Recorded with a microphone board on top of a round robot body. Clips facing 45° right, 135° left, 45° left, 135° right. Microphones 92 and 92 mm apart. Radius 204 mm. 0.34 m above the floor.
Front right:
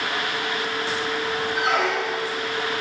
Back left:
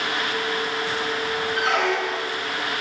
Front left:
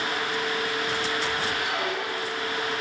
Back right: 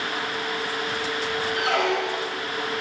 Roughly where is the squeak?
Behind right.